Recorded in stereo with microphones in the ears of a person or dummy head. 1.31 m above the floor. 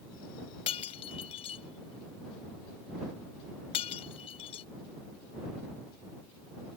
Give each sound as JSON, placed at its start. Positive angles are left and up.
{"t": 0.7, "sound": "breaking glass", "side_deg": 30}